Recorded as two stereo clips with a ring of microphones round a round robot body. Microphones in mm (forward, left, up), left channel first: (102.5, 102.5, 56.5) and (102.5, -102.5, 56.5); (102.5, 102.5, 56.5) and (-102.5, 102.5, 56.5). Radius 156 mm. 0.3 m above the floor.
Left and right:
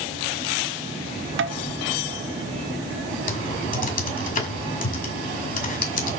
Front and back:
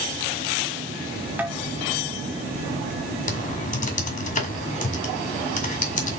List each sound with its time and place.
1.4 s tapping: 95° right, 0.8 m
3.3 s typing on a keyboard: 45° left, 2 m